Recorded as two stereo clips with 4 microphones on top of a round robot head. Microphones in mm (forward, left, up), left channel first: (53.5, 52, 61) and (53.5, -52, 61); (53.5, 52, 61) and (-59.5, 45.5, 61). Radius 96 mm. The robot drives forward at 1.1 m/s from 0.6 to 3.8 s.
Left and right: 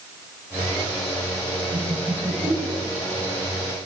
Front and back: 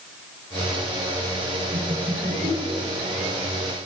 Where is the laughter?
140° right, 7 m; by 3.4 s 150° right, 8.5 m.